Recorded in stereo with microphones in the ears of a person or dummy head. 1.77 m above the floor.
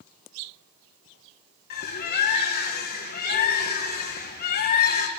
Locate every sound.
1.7 s a bird: 50° left (ahead or behind), 2 m